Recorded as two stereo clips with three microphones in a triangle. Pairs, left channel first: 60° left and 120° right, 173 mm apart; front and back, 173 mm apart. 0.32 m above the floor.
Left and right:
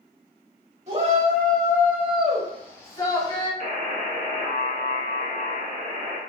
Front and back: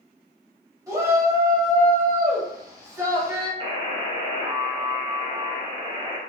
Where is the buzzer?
130° right, 0.7 m.